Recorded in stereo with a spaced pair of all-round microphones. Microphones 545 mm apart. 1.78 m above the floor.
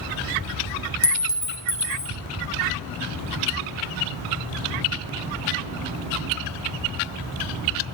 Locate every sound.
1.0 s a clink: 25° left (ahead or behind), 0.8 m